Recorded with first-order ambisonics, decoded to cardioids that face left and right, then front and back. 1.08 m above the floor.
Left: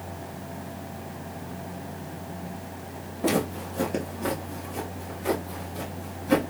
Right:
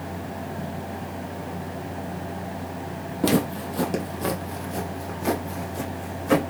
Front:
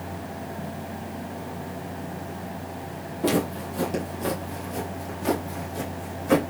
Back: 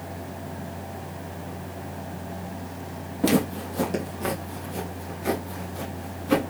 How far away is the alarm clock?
No alarm clock in this recording.